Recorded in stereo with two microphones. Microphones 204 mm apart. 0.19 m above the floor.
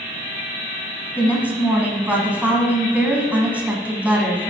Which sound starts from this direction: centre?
A woman speaking, at 1.2 s.